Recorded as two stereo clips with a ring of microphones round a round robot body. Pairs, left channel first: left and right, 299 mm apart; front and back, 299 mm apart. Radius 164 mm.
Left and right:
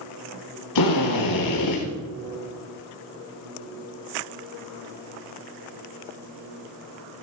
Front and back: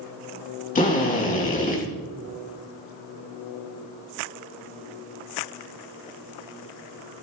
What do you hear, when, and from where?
0.8 s a drill: 65° left, 3.5 m